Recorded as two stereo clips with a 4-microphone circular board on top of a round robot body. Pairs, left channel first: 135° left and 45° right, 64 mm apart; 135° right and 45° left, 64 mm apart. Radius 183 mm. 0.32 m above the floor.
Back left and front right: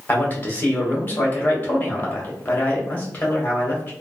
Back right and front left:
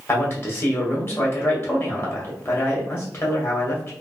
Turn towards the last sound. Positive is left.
turn(degrees=-170)